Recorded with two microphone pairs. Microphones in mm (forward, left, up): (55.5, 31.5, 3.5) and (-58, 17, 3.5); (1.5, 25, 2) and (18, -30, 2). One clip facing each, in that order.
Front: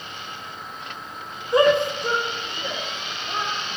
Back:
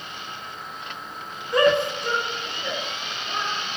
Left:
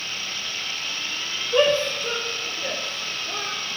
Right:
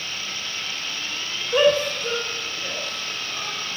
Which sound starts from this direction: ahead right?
A shout, at 1.5 s.